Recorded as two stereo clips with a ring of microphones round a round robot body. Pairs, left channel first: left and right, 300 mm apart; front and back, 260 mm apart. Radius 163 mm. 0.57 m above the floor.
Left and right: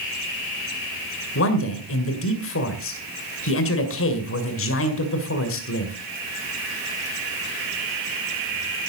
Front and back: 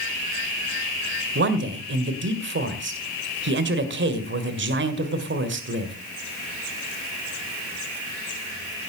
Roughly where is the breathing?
I don't hear breathing.